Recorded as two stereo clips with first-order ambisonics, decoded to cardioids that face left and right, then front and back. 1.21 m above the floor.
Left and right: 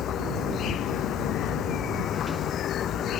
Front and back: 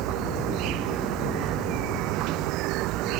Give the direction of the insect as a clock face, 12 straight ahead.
7 o'clock.